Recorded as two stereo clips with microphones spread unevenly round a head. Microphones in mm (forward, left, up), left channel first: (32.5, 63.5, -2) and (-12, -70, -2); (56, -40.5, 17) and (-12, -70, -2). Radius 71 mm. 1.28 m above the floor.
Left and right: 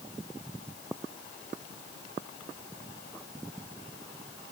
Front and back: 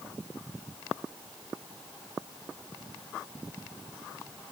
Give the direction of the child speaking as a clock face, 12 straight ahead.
No child speaking in this recording.